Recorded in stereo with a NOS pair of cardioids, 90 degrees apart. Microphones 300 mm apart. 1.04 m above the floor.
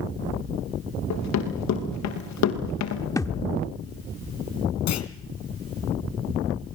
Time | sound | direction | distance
1.1 | running footsteps | 65° left | 7 m
3.2 | a thud | 10° left | 1.3 m
4.9 | a clunk | 65° left | 2.5 m